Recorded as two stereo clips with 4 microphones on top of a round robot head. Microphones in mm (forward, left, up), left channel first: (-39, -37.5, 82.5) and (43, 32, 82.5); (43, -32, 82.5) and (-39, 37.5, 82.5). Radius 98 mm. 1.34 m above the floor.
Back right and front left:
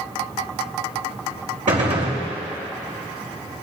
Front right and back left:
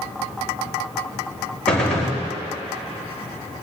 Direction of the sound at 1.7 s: 40° left.